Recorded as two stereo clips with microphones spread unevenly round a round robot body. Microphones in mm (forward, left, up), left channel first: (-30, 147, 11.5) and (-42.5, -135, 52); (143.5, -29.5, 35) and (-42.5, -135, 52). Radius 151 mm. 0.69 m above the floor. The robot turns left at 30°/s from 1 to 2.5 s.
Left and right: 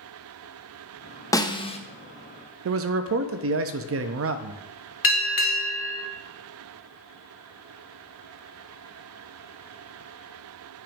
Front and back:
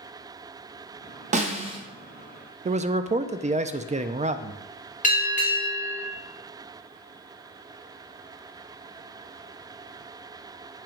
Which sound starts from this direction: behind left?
A snare drum, at 1.3 s.